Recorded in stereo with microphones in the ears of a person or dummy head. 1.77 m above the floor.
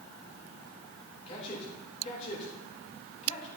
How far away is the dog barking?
I don't hear a dog barking.